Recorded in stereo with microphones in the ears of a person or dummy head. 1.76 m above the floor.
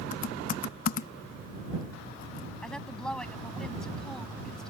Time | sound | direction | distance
0.1 | typing on a keyboard | 50° left (ahead or behind) | ?
2.6 | a woman speaking | 5° left (ahead or behind) | ?